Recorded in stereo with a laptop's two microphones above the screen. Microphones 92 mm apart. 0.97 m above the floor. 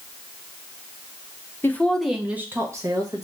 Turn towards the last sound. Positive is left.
turn(degrees=-40)  # may be behind; listen again after turning